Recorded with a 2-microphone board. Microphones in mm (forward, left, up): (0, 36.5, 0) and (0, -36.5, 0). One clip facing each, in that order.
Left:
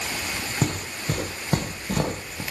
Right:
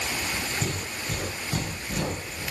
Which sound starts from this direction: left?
Footsteps, at 0.6 s.